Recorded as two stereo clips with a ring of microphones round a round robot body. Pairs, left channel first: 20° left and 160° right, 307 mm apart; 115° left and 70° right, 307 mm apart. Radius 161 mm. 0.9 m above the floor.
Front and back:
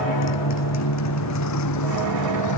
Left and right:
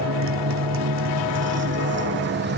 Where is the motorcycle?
20° right; by 2.6 s 10° right.